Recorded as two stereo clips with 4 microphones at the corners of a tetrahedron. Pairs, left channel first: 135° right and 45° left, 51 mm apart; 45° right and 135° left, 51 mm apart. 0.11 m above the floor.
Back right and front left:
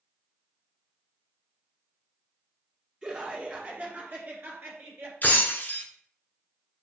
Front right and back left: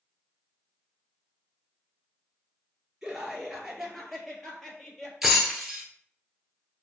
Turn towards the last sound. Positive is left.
turn(degrees=-140)